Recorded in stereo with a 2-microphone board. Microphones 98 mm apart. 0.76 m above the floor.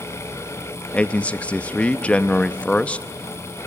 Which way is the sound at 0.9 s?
15° left (ahead or behind).